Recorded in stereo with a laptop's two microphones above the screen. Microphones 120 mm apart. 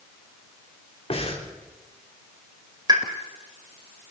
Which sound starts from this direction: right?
A pop, at 2.9 s.